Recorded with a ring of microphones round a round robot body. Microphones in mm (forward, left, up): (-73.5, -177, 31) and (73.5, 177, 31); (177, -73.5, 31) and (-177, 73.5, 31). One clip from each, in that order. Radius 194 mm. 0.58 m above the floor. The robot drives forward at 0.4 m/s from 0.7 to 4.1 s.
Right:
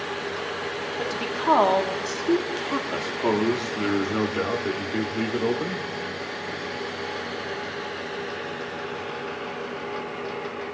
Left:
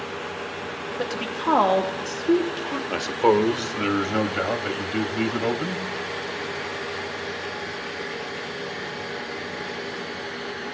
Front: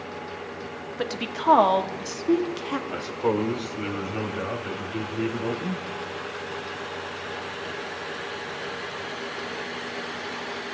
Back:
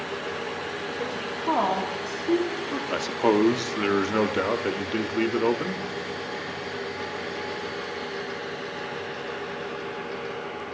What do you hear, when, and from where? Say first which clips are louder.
1.0 s a woman speaking: even, front 5 dB; 20° right, 1.2 m; by 2.8 s 75° right, 0.9 m
2.9 s a man speaking: left 8 dB, back 5 dB; 110° left, 0.7 m; by 5.8 s 150° left, 0.9 m